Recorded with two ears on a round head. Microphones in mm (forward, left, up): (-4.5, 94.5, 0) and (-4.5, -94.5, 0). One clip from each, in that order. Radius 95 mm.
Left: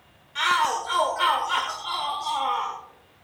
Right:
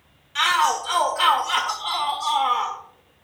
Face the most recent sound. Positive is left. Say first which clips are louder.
# right 3 dB
turn(degrees=-35)  # may be behind; listen again after turning